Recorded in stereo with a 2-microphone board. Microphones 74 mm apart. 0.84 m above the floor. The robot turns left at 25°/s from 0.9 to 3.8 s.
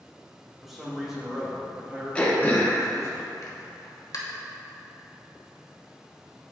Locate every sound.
0.6 s a man speaking: 5° right, 1.4 m; by 3.1 s 60° right, 1.4 m
2.1 s throat clearing: 15° left (ahead or behind), 1.0 m; by 4.2 s 50° left (ahead or behind), 1.0 m